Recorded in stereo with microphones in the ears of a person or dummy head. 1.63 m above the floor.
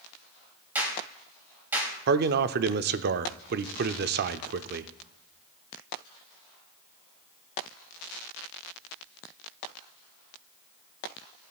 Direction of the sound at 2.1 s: 55° right (ahead or behind).